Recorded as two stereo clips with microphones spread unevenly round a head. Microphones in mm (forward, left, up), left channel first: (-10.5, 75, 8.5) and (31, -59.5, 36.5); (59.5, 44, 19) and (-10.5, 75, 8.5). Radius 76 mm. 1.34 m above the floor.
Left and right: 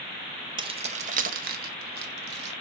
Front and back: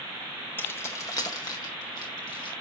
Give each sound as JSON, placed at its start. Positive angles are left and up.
{"t": 0.6, "sound": "keys jangling", "azimuth_deg": -65, "distance_m": 0.6}